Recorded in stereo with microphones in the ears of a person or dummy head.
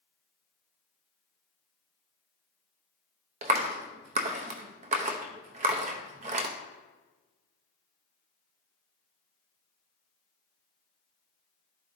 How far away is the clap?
About 0.7 m.